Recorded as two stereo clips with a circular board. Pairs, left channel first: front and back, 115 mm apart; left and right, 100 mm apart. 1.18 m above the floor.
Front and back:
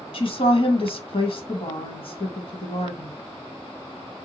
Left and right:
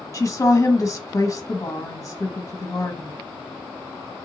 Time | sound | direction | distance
0.1 | a woman speaking | 30° left | 1.2 m